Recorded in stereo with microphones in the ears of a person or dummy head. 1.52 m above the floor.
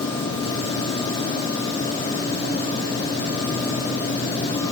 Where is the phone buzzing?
No phone buzzing in this recording.